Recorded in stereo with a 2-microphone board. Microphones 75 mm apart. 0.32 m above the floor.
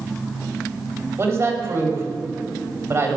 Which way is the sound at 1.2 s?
40° right (ahead or behind).